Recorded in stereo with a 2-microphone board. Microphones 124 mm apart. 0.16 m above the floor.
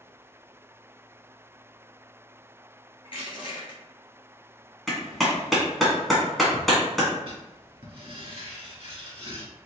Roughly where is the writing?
Right.